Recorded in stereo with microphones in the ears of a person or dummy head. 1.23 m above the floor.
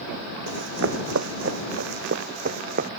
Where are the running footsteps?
70° right (ahead or behind); by 2.9 s 45° right (ahead or behind).